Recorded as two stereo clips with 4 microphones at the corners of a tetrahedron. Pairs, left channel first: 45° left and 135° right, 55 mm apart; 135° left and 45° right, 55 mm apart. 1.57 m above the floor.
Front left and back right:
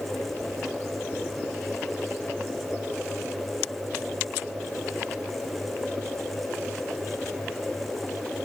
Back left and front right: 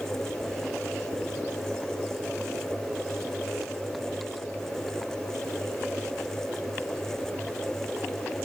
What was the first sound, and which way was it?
Only background noise.